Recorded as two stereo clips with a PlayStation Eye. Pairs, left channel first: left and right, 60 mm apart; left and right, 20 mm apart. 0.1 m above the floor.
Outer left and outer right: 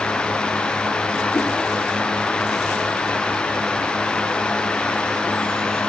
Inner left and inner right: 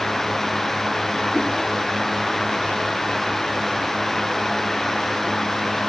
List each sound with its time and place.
1.3 s a whoosh: 45° left (ahead or behind), 8 m